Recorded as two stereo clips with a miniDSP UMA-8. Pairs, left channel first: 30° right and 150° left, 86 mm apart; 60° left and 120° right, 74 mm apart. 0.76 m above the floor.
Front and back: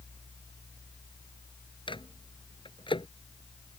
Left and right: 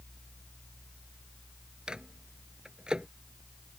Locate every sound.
1.9 s a microwave: 40° right